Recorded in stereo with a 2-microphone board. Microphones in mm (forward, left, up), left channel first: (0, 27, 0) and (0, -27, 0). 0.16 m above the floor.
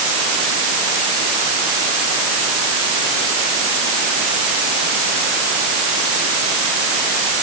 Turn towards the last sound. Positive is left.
No sound to turn to.